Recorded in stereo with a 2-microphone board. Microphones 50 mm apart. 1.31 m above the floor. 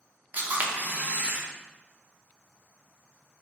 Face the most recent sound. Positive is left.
turn(degrees=-35)  # may be behind; listen again after turning